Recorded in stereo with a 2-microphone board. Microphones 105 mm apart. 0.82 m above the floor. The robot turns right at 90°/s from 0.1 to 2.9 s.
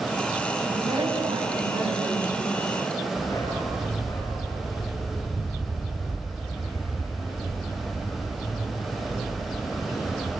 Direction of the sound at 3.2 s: 30° left (ahead or behind).